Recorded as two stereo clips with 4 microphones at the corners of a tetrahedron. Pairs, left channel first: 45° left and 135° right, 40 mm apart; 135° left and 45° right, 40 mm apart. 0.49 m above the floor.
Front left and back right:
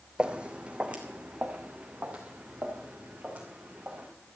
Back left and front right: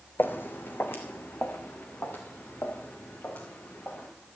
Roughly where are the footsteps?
Behind.